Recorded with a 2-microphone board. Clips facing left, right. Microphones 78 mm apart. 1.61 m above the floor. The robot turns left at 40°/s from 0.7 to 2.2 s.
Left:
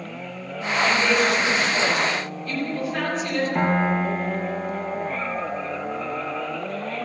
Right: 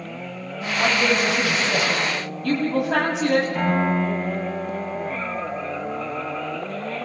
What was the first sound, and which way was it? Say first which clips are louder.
A woman speaking: even; 40° right.